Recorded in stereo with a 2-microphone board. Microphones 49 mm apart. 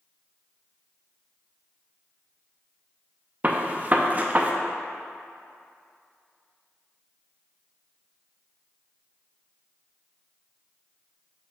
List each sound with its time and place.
3.4 s a gunshot: 30° right (ahead or behind), 0.6 m